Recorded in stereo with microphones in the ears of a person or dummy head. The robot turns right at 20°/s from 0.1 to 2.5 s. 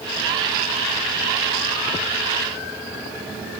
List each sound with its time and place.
Only background noise.